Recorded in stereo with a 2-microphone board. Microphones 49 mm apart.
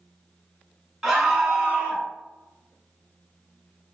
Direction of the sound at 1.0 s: 5° right (ahead or behind).